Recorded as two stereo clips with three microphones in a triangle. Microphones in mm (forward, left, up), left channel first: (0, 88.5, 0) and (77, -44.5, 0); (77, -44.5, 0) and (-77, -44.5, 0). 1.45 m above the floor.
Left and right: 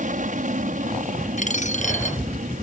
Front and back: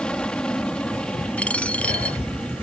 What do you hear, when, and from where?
0.0 s an aircraft: 85° right
1.4 s a dropped coin: 80° left